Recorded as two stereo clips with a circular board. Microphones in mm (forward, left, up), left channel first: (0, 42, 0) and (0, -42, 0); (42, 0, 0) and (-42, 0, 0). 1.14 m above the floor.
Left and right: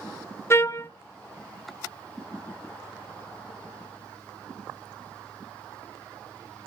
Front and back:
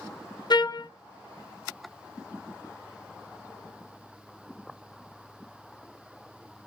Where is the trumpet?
30° left, 0.6 m.